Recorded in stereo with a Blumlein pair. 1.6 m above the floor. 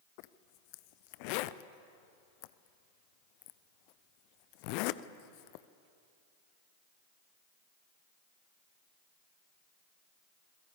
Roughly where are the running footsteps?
No running footsteps in this recording.